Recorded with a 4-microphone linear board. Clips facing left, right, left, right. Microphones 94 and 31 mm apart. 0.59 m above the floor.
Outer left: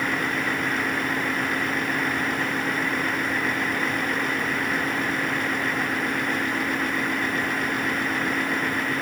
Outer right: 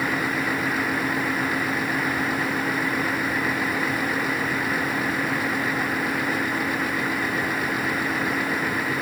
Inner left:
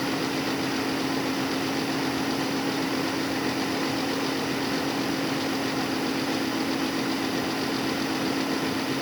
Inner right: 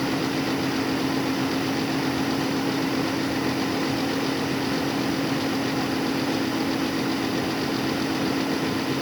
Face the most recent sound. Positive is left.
No sound to turn to.